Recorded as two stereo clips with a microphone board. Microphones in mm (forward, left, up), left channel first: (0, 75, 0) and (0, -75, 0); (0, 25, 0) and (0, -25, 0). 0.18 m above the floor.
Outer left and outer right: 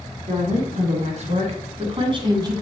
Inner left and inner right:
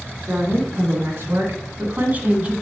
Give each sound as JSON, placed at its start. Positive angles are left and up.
{"t": 0.3, "sound": "a woman speaking", "side_deg": -60, "distance_m": 2.5}